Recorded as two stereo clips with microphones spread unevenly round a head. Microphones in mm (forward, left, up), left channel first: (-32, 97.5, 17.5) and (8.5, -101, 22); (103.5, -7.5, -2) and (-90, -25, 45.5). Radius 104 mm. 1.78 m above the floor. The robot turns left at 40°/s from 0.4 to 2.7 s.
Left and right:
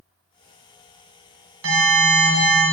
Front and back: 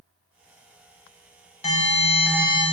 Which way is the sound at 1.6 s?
55° right.